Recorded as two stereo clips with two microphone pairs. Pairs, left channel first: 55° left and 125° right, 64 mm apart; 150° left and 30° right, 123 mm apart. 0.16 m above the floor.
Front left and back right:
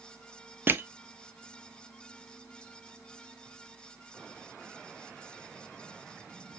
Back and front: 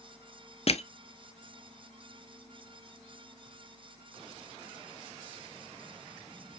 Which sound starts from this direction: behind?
Crushing, at 0.7 s.